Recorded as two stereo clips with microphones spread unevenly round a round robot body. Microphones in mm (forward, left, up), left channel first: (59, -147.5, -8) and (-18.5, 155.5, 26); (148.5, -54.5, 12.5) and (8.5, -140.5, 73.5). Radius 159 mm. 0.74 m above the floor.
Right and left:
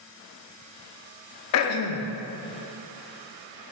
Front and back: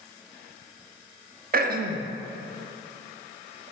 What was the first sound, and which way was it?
Throat clearing, 115° right.